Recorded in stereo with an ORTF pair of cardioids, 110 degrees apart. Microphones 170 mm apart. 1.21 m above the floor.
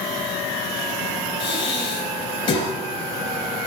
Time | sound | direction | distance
1.4 | breathing | 30° left | 3.5 m